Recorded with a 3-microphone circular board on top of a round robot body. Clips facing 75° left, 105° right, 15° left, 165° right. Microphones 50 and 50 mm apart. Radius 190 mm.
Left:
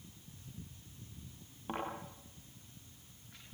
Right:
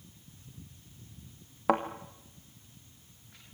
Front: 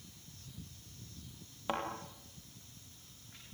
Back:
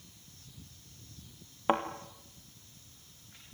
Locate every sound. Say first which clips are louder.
1.7 s a thud: right 13 dB, back 8 dB; 105° right, 1.6 m